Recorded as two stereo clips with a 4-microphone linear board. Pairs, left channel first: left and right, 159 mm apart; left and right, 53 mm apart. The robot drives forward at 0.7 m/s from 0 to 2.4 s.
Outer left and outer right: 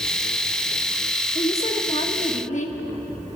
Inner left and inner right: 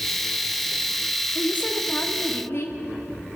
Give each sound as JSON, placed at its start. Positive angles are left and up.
{"t": 1.4, "sound": "a woman speaking", "side_deg": 40, "distance_m": 1.6}